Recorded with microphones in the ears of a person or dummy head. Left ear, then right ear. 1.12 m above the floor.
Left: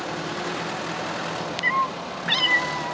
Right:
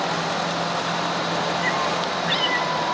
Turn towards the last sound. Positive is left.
turn(degrees=15)  # may be behind; listen again after turning